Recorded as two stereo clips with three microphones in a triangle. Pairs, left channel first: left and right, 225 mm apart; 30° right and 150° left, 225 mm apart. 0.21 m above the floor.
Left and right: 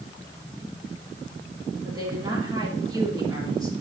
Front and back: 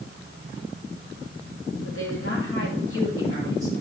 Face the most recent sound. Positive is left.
turn(degrees=-20)